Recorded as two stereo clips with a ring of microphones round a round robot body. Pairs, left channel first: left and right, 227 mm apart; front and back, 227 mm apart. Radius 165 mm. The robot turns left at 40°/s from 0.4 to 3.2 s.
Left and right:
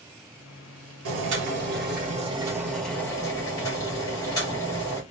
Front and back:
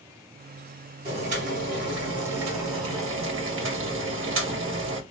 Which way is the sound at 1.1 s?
110° right.